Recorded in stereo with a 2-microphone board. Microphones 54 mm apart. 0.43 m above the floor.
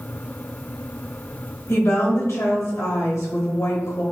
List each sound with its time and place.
1.7 s a woman speaking: 55° left (ahead or behind), 1.5 m